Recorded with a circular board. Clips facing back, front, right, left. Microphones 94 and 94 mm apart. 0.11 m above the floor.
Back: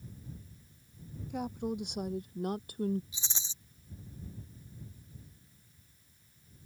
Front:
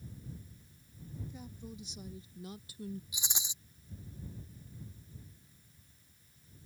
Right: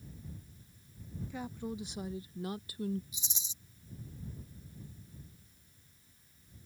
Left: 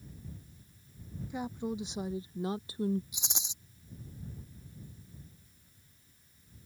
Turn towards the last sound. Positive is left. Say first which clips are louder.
# front 2 dB, left 6 dB
turn(degrees=75)